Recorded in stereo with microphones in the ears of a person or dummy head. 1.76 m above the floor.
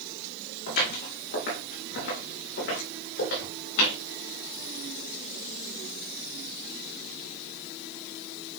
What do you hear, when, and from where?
0.7 s footsteps: 65° left (ahead or behind), 4 m; by 3.9 s 60° left (ahead or behind), 5.5 m